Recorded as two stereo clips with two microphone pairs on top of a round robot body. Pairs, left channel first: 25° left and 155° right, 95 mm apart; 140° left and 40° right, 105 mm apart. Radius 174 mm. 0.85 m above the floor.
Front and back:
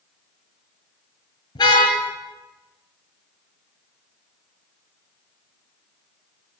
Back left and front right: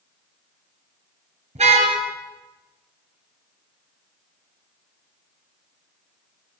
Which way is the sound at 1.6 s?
20° right.